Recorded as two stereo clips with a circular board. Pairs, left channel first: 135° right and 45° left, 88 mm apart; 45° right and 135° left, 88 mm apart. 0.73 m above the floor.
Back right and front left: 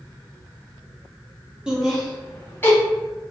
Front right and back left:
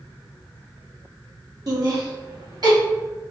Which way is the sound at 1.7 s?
120° left.